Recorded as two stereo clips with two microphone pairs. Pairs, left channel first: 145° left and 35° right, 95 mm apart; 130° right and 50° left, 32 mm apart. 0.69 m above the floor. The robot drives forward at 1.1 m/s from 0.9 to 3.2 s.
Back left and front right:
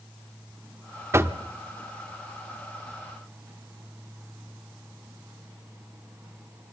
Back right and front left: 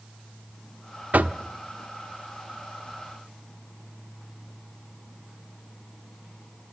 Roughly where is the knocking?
Ahead left.